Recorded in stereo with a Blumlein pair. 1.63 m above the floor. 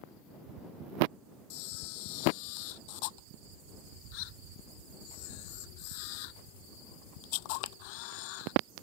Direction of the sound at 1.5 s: 45° left.